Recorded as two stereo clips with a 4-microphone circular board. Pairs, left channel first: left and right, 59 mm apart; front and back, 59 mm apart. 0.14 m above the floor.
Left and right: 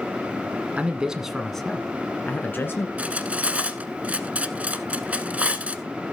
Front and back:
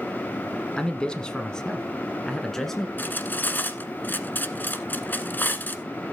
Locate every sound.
0.8 s a man speaking: 55° right, 1.2 m; by 2.9 s 80° left, 1.6 m
3.0 s cutlery clinking: 35° right, 1.0 m